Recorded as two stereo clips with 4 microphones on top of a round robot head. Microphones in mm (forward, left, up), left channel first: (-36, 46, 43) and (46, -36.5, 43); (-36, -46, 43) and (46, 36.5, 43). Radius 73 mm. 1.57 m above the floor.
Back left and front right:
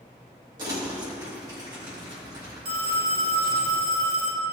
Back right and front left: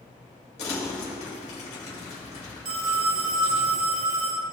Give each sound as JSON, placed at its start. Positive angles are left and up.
{"t": 0.6, "sound": "crumpling", "azimuth_deg": -105, "distance_m": 3.0}
{"t": 2.6, "sound": "a phone ringing", "azimuth_deg": 0, "distance_m": 2.0}